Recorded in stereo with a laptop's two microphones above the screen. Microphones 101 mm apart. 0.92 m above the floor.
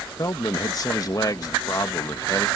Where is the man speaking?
40° left (ahead or behind).